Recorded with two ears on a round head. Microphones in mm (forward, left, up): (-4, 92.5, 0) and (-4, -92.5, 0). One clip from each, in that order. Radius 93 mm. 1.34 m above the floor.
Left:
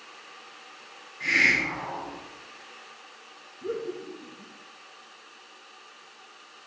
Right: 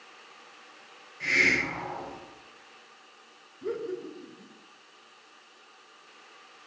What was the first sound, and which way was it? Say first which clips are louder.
A hiss: left 2 dB; 10° right (ahead or behind).